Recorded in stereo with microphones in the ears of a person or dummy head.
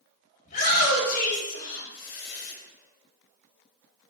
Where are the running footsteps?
No running footsteps in this recording.